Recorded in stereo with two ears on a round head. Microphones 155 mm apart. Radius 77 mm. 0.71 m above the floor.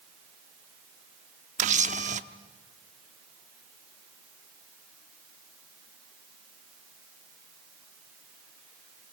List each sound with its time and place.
1.6 s a camera shutter: 45° right (ahead or behind), 0.8 m